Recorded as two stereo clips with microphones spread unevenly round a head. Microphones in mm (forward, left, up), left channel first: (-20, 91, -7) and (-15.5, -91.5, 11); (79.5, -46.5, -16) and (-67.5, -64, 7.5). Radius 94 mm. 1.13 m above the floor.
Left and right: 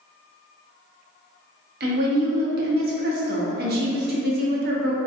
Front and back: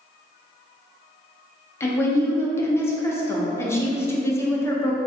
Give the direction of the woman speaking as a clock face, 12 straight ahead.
2 o'clock.